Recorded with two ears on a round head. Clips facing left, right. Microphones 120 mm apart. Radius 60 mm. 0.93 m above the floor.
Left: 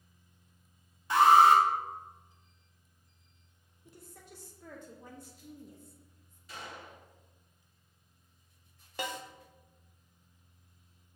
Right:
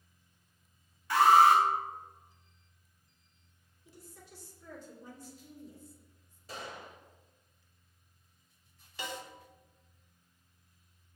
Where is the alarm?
20° left (ahead or behind), 0.8 m.